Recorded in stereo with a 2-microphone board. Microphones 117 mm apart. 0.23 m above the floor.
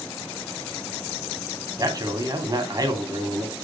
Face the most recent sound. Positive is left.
turn(degrees=-35)  # may be behind; listen again after turning